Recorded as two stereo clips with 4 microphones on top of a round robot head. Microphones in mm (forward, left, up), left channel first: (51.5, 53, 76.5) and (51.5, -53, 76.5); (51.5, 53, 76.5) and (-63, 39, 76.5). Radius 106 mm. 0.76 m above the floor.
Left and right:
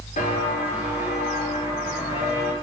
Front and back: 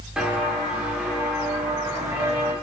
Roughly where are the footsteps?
Left.